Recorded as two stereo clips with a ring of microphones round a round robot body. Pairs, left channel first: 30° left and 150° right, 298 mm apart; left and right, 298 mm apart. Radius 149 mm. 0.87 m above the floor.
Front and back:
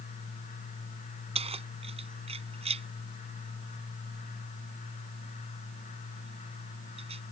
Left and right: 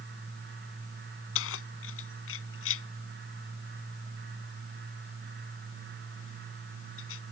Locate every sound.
1.4 s keys jangling: 140° left